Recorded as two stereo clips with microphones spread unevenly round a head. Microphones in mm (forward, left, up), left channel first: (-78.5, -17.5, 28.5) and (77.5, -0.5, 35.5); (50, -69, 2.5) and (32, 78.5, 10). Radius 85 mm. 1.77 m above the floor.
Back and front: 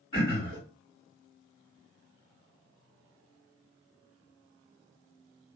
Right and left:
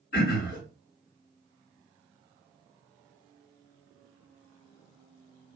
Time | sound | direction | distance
0.1 | throat clearing | 115° right | 2.0 m